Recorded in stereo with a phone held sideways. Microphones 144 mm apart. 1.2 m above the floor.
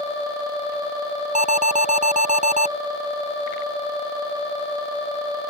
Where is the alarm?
60° right (ahead or behind).